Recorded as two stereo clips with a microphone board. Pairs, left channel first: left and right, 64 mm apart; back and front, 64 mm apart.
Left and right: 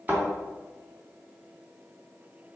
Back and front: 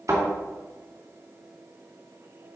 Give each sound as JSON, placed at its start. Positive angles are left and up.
{"t": 0.1, "sound": "a thud", "azimuth_deg": -30, "distance_m": 3.5}